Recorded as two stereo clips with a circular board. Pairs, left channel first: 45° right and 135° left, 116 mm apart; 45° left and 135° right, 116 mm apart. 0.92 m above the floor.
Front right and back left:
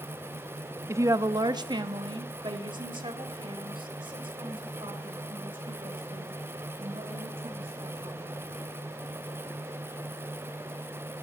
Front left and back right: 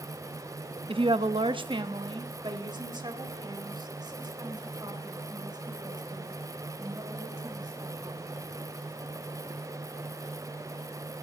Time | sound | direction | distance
0.9 | a woman speaking | 160° right | 0.6 m